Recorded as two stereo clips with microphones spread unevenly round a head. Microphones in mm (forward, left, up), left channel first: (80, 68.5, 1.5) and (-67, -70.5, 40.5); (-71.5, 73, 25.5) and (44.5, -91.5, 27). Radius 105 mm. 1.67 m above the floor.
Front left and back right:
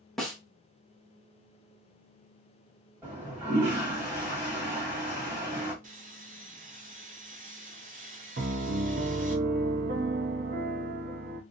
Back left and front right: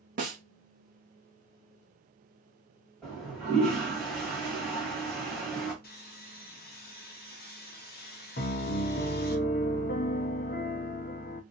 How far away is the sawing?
About 0.8 m.